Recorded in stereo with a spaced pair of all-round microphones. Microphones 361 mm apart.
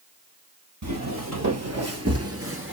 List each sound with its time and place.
0.8 s footsteps: 50° right (ahead or behind), 2.0 m; by 2.7 s 35° right (ahead or behind), 1.2 m